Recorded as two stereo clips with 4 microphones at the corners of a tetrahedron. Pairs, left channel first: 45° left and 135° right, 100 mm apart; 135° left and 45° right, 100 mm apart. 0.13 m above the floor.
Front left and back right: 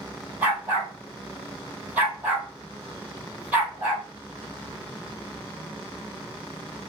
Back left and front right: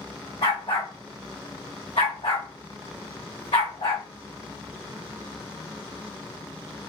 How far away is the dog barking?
About 2 m.